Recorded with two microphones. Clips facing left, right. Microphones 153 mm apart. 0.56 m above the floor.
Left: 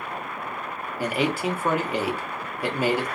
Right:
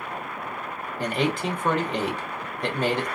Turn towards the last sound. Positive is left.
turn(degrees=10)  # may be behind; listen again after turning